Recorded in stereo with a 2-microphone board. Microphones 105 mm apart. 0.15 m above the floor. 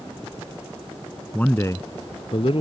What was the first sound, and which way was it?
A man speaking, 10° left (ahead or behind).